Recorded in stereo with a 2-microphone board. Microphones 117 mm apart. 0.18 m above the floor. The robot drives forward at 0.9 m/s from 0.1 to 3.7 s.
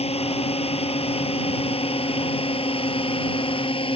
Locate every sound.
0.0 s a drone: 60° left (ahead or behind); by 4.0 s 50° left (ahead or behind)